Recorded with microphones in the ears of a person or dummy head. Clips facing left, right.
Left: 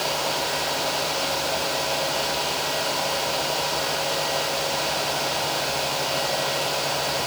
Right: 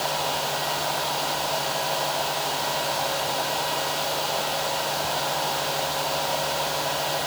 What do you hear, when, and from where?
Only background noise.